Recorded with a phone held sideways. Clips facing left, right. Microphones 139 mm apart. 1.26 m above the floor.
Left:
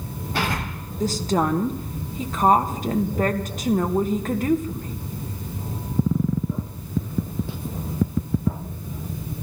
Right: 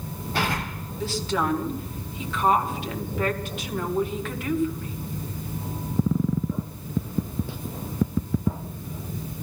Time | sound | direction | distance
1.0 | a woman speaking | 40° left (ahead or behind) | 1.4 m